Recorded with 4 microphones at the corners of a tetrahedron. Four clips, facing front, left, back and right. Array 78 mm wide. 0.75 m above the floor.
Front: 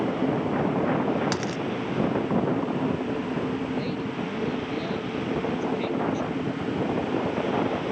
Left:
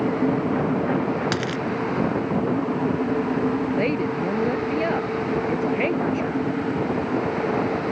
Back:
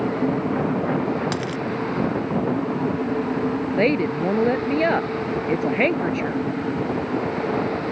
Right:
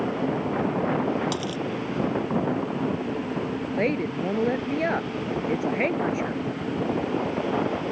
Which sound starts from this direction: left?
A dropped coin, at 1.3 s.